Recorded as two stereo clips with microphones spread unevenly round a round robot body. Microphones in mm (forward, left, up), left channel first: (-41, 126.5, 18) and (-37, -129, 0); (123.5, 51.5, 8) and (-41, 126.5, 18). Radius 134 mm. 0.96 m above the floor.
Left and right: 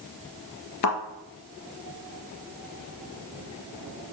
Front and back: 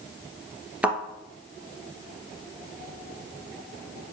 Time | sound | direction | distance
0.8 | a thud | 75° left | 2 m